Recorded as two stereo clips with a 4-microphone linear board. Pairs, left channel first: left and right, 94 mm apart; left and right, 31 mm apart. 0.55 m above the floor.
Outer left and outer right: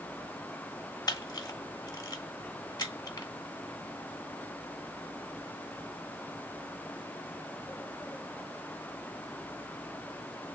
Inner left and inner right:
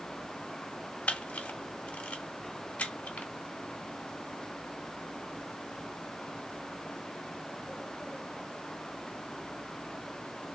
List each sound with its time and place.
1.1 s a camera shutter: 45° left (ahead or behind), 0.8 m